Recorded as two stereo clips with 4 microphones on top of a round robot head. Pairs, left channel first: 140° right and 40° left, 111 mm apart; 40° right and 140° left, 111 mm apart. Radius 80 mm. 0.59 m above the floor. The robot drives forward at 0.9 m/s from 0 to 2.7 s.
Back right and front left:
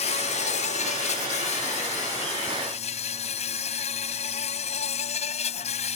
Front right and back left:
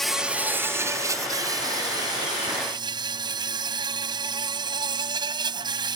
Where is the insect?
125° right; by 6.0 s 170° right.